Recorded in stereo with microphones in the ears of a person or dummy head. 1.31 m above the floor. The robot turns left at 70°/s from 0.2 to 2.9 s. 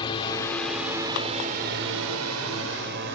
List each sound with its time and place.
0.0 s a drone: 25° left (ahead or behind); by 3.2 s 55° right (ahead or behind)